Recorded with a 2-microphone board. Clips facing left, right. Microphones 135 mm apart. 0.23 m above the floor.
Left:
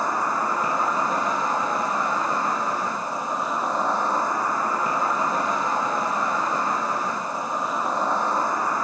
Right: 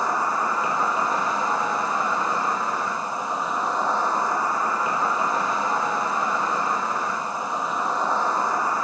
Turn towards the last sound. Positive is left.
turn(degrees=50)  # may be behind; listen again after turning